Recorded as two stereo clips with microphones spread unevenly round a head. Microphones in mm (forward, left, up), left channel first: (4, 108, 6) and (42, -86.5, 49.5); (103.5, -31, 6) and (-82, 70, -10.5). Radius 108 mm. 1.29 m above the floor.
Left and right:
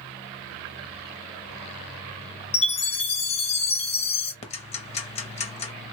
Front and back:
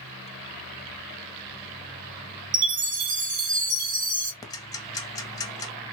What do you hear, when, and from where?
2.5 s a chime: 165° left, 0.8 m
4.4 s ticking: 45° left, 0.7 m